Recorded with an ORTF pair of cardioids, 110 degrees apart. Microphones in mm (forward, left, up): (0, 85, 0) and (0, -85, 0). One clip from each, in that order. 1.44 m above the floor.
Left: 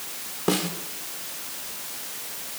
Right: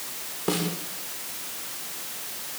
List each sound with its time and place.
0.5 s a snare drum: 20° left, 4 m